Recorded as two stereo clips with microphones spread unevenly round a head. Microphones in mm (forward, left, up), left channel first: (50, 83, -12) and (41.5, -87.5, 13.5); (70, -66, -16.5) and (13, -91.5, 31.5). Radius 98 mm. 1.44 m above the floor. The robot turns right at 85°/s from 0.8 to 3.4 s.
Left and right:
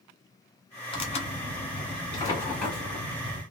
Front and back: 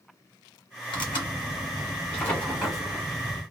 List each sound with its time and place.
0.9 s tearing paper: 40° left, 1.4 m; by 3.4 s 110° right, 1.4 m